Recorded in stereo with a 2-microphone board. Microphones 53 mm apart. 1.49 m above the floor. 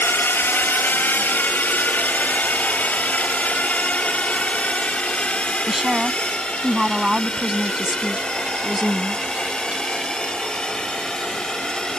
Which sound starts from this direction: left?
A drone, at 0.0 s.